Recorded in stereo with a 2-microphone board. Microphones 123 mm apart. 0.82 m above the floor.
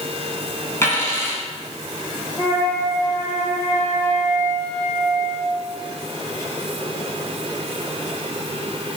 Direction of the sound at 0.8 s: 20° left (ahead or behind).